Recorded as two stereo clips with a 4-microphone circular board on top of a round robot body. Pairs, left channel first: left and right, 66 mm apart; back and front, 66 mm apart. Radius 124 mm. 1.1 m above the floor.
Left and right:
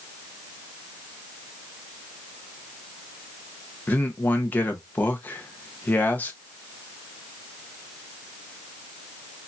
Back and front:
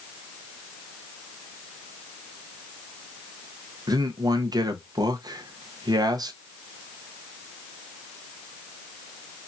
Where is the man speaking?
25° left, 1.0 m.